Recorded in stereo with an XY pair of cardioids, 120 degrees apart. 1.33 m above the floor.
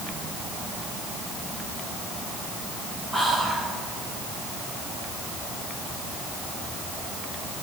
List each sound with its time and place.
3.1 s whispering: straight ahead, 0.6 m